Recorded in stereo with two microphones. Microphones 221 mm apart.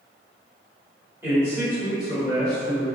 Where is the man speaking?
10° right (ahead or behind), 1.3 m; by 2.9 s 5° left (ahead or behind), 1.4 m.